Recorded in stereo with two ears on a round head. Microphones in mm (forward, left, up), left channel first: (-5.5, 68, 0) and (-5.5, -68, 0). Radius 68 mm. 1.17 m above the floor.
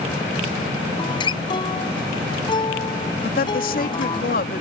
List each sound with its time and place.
1.0 s a guitar: 30° left (ahead or behind)
3.2 s a woman speaking: 65° left (ahead or behind)